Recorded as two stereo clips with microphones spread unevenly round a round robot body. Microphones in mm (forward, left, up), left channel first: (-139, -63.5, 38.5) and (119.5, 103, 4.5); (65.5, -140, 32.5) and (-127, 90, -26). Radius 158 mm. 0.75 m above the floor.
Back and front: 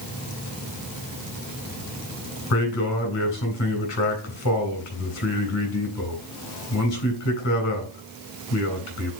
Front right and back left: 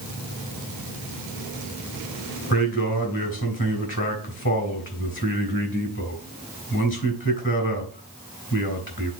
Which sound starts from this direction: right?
A man speaking, at 2.5 s.